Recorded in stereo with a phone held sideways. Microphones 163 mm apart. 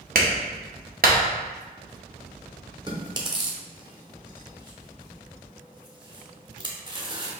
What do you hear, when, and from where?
0.1 s a clap: 65° right (ahead or behind), 0.8 m
2.9 s chewing: 30° right (ahead or behind), 0.9 m